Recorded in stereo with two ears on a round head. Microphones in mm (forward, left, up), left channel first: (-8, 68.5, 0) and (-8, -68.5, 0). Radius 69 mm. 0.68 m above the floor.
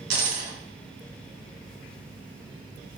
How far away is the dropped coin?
About 3 m.